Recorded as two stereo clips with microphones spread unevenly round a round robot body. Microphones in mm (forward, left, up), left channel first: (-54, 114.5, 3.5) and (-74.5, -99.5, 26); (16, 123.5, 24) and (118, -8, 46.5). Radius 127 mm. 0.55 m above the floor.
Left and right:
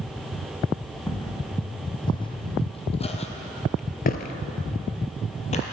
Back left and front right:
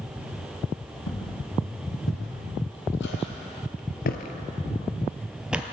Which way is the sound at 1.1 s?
160° left.